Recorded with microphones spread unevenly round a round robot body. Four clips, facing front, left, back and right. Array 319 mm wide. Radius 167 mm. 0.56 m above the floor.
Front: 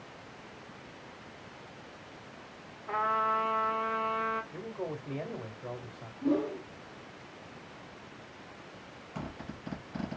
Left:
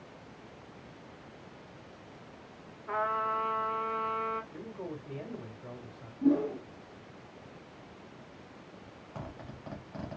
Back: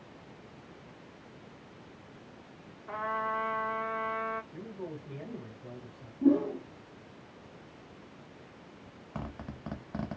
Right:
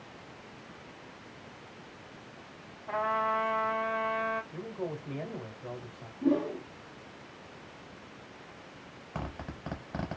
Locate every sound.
2.9 s a trumpet: 135° left, 1.3 m
4.5 s a man speaking: 10° right, 1.2 m
6.2 s a whoosh: 160° left, 0.8 m
9.2 s a zipper: 135° right, 0.7 m